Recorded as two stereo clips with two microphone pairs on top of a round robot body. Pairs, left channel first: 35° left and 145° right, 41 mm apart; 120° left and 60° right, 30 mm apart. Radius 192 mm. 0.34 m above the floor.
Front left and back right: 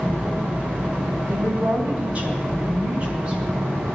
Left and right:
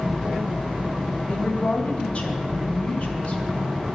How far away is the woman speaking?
About 3.5 m.